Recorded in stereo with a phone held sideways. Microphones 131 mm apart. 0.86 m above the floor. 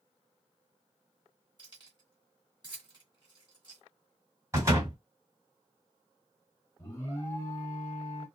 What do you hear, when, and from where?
1.6 s keys jangling: 35° right (ahead or behind), 1.3 m
4.5 s a door slam: 25° right (ahead or behind), 1.6 m
6.8 s an alarm: 25° left (ahead or behind), 1.7 m